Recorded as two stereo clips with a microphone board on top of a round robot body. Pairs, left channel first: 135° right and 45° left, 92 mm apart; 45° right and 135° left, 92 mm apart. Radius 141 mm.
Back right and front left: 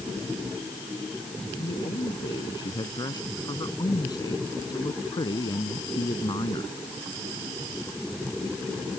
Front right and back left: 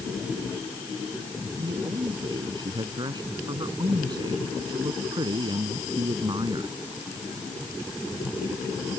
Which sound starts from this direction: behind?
A man speaking, at 1.6 s.